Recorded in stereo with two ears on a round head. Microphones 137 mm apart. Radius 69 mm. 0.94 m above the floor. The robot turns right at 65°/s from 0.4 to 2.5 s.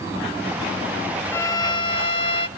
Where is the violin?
30° left, 0.7 m; by 2.5 s 105° left, 0.7 m.